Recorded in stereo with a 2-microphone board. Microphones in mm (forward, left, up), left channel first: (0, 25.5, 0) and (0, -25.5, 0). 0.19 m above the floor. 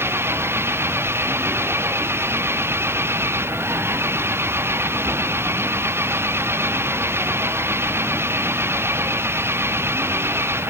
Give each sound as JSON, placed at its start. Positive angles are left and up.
{"t": 0.0, "sound": "an engine running", "side_deg": -50}